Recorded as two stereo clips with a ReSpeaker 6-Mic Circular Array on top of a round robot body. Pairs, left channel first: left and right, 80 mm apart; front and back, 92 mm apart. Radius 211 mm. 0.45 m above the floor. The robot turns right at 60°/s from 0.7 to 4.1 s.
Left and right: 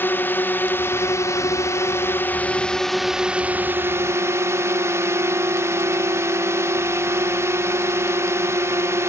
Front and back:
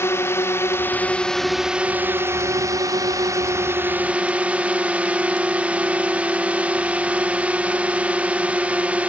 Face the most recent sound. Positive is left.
turn(degrees=-115)